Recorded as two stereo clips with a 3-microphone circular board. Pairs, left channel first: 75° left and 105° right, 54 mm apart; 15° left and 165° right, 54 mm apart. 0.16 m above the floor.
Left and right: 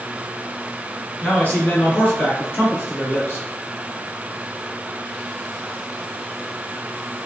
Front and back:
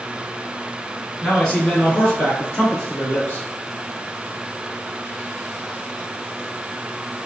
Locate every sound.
1.2 s a man speaking: 95° left, 1.6 m; by 3.5 s 45° left, 2.5 m